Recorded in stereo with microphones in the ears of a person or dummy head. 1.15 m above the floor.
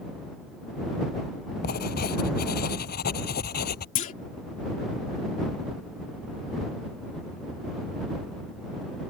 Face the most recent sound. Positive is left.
turn(degrees=40)  # may be behind; listen again after turning